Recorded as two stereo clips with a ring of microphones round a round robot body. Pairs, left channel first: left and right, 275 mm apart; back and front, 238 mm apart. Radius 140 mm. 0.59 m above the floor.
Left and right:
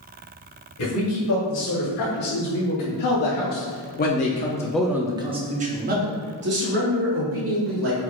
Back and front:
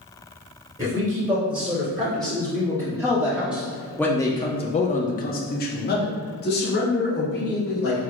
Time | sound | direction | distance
0.8 | a man speaking | 65° left | 2.0 m